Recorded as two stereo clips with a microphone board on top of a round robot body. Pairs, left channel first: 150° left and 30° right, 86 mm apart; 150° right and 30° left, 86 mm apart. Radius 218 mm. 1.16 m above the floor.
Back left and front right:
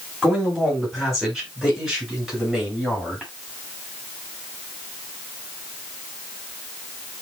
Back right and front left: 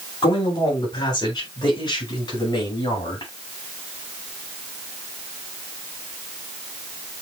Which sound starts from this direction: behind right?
A man speaking, at 0.2 s.